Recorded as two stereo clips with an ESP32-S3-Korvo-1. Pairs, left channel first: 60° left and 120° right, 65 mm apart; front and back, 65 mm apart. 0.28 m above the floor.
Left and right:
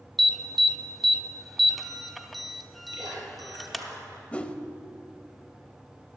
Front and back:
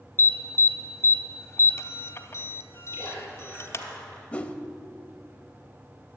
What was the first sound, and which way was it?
An alarm, 30° right.